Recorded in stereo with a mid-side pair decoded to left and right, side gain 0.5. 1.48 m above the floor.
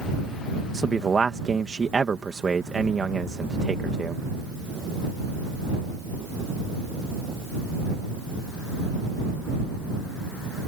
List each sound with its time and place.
0.7 s a man speaking: 25° right